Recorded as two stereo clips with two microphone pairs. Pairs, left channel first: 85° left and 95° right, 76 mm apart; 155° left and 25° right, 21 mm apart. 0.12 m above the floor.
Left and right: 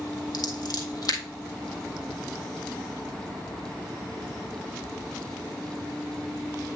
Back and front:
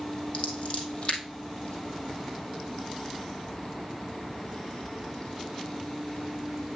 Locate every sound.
0.3 s scissors: 120° left, 2.5 m